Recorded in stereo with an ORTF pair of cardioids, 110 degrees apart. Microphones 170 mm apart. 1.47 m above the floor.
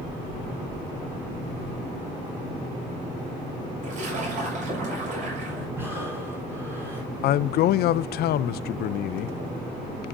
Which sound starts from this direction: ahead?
Breathing, at 5.8 s.